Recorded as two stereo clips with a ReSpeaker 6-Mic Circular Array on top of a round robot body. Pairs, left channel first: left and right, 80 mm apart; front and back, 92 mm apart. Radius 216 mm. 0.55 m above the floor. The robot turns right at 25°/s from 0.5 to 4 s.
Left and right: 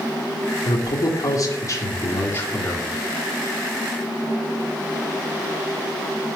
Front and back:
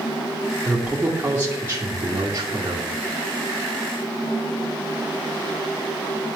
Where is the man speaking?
95° left, 1.6 m; by 2.9 s 150° left, 1.6 m.